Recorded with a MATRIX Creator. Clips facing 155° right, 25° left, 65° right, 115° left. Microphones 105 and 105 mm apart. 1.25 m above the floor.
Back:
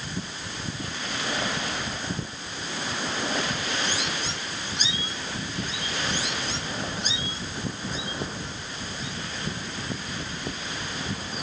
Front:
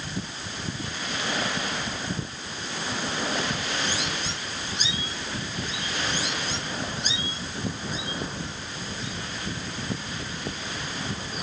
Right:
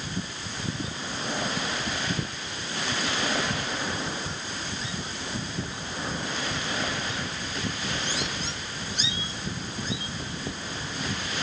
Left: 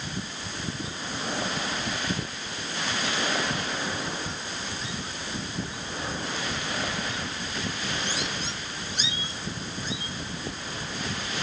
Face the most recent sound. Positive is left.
No sound to turn to.